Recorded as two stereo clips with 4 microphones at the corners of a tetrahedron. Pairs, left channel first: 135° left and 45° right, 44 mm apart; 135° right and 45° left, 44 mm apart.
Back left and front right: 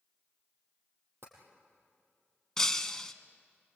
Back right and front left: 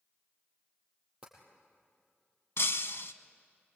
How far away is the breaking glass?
About 0.9 m.